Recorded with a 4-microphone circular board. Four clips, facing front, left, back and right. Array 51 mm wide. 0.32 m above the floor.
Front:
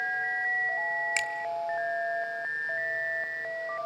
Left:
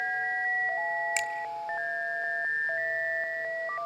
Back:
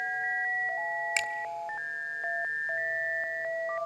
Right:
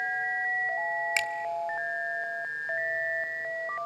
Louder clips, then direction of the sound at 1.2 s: Right 2 dB, front 1 dB; 95° right.